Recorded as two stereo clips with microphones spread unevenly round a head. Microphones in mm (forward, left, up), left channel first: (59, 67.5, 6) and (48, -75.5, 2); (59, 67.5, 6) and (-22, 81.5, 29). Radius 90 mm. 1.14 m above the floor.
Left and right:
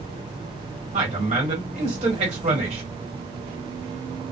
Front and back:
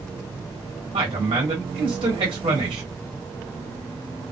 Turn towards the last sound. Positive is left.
turn(degrees=-145)